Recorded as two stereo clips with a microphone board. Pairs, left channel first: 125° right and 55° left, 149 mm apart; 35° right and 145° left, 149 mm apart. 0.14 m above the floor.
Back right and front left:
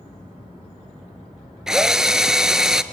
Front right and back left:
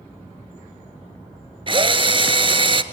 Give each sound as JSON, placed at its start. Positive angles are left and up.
{"t": 1.7, "sound": "a drill", "azimuth_deg": 140, "distance_m": 0.5}